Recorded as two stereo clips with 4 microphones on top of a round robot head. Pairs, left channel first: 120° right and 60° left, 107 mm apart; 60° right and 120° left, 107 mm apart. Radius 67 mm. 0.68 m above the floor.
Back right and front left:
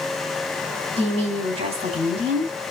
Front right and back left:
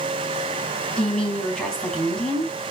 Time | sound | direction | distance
1.0 | a woman speaking | 25° left | 4.5 m